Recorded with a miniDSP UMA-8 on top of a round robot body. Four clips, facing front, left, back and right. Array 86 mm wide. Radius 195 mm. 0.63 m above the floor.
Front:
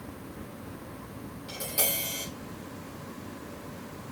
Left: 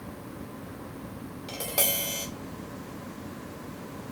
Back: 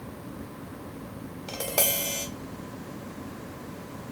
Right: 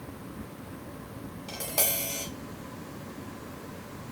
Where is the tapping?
175° left, 1.0 m.